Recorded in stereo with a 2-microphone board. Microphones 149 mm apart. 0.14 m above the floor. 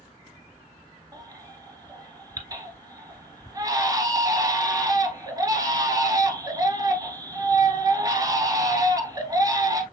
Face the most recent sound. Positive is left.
turn(degrees=-25)  # may be behind; listen again after turning